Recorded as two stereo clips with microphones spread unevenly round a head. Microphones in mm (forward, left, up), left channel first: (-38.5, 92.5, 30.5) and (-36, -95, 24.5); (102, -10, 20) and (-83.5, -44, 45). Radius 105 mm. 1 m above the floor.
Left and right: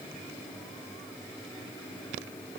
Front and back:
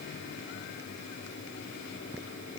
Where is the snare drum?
I don't hear a snare drum.